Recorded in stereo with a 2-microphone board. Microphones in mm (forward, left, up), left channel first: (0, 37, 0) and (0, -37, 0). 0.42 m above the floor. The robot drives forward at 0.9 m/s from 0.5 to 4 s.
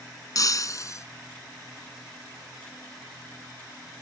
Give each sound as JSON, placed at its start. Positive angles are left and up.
{"t": 0.3, "sound": "breaking glass", "side_deg": 50}